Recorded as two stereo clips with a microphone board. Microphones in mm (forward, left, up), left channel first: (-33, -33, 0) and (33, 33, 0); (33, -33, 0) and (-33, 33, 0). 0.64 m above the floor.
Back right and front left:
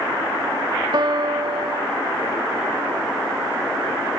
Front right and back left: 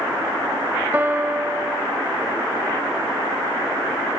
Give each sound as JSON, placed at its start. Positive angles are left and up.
{"t": 0.9, "sound": "a piano", "azimuth_deg": 70, "distance_m": 0.6}